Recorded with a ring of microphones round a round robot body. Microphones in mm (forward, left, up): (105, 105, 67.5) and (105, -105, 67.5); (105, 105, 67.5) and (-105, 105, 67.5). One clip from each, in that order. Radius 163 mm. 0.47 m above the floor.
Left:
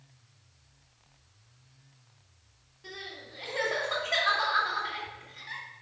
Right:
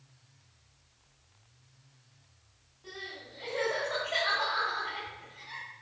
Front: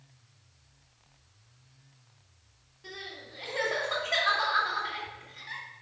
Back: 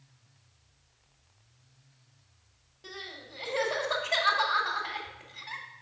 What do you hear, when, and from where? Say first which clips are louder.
2.8 s crying: left 1 dB, even; 150° left, 2.5 m